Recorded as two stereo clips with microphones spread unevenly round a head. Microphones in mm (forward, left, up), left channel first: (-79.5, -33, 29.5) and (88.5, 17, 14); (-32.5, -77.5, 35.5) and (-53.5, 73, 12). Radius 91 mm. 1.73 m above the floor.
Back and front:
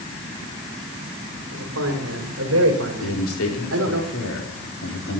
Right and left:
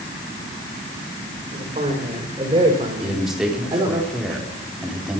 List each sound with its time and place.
1.5 s a man speaking: 35° left, 5 m; by 4.0 s 25° left, 4 m
3.0 s a man speaking: 175° right, 4.5 m